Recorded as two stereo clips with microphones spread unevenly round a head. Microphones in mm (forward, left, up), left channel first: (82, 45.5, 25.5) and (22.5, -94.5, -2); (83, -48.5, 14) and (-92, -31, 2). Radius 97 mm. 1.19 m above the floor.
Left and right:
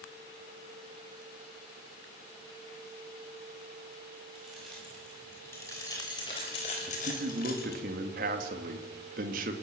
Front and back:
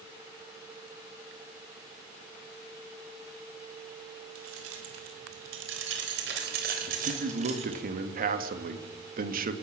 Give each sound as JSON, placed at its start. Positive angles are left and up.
{"t": 4.3, "sound": "keys jangling", "azimuth_deg": 160, "distance_m": 4.0}
{"t": 6.9, "sound": "a man speaking", "azimuth_deg": -150, "distance_m": 2.5}